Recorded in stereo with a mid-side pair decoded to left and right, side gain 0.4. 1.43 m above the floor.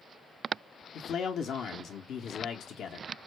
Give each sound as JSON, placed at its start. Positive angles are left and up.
{"t": 0.9, "sound": "a man speaking", "azimuth_deg": 70, "distance_m": 0.8}